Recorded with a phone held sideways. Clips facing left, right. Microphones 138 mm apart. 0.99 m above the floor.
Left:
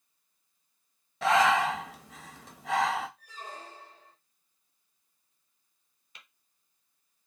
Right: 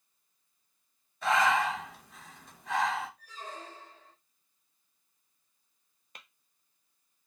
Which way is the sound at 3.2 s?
10° left (ahead or behind).